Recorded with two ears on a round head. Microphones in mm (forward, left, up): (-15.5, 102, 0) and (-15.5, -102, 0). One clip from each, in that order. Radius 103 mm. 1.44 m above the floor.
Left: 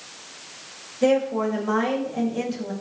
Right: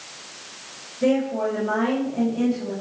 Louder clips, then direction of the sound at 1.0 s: Left 1 dB; 45° left (ahead or behind).